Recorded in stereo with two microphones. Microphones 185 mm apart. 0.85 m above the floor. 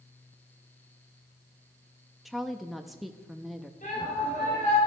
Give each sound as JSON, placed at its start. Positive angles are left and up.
{"t": 2.2, "sound": "a woman speaking", "side_deg": 0, "distance_m": 0.7}
{"t": 3.8, "sound": "a shout", "side_deg": 45, "distance_m": 5.0}